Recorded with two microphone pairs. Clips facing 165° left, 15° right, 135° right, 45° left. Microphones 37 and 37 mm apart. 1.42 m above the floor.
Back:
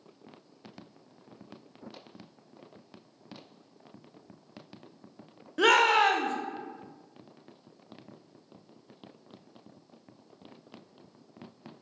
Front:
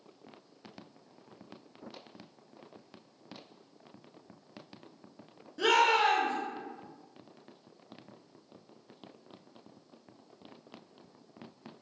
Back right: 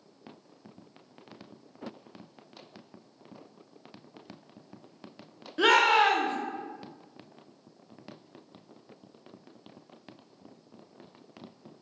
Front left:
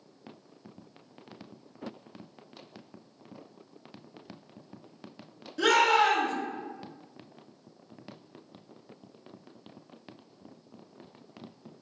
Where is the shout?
165° left, 0.5 m.